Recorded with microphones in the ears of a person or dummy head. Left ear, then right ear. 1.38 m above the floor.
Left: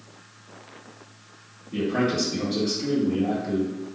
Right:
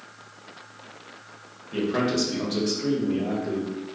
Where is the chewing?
No chewing in this recording.